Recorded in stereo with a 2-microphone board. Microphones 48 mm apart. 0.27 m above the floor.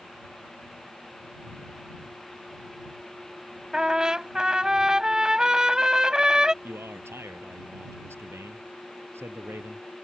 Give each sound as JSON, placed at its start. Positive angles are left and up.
{"t": 3.7, "sound": "a trumpet", "side_deg": -15}
{"t": 6.6, "sound": "a man speaking", "side_deg": -65}